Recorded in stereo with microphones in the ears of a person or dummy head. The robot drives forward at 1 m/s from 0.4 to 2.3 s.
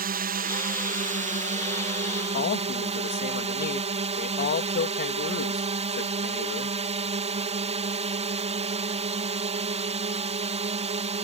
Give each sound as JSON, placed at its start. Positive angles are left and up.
{"t": 0.0, "sound": "a drone", "side_deg": -45}
{"t": 2.3, "sound": "a man speaking", "side_deg": 55}